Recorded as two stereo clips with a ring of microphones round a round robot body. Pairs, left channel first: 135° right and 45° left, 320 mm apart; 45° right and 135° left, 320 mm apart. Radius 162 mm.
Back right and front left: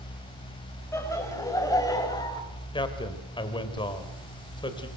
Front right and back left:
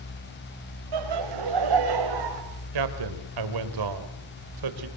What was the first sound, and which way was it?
Laughter, 145° left.